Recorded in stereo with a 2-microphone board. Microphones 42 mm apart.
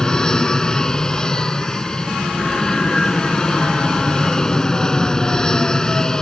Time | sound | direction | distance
0.0 | an aircraft | 15° left (ahead or behind) | ?